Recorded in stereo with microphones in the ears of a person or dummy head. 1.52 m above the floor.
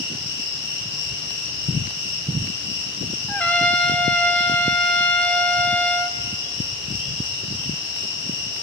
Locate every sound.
0.0 s an insect: 20° right (ahead or behind), 1.8 m
3.3 s a trumpet: 5° left (ahead or behind), 0.5 m